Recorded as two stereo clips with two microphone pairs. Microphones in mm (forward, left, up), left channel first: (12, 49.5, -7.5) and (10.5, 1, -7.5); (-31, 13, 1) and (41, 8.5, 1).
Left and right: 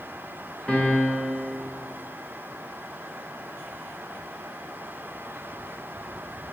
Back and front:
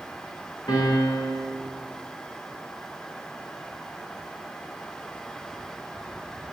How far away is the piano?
About 1.8 m.